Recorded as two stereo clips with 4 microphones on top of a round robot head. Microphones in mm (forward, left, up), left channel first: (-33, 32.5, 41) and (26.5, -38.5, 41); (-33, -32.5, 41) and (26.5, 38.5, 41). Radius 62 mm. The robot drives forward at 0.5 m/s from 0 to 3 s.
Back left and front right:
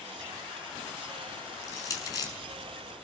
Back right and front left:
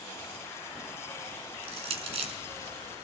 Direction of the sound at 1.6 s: 75° left.